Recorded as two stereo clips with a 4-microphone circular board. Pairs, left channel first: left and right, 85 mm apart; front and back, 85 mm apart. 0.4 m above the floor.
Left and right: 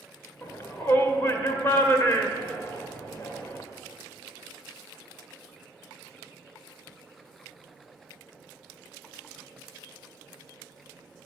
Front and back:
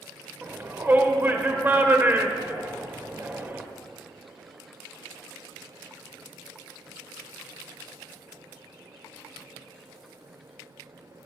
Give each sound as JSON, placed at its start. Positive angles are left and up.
{"t": 0.4, "sound": "a shout", "azimuth_deg": 130, "distance_m": 1.4}